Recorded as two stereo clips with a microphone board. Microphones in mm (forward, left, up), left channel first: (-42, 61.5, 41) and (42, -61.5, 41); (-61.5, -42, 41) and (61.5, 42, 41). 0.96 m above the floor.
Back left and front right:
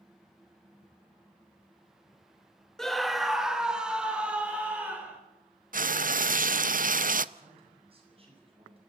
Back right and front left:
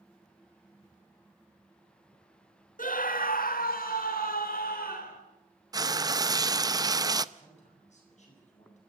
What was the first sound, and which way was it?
A scream, 150° right.